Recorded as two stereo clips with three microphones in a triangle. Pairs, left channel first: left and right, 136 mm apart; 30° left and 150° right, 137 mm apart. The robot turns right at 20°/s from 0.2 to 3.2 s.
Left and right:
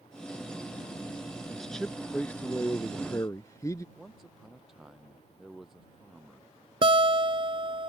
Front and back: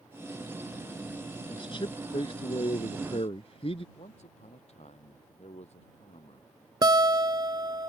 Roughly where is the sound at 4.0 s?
Ahead.